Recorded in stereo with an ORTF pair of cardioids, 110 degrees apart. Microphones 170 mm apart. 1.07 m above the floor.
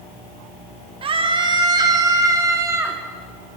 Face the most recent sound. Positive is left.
turn(degrees=-15)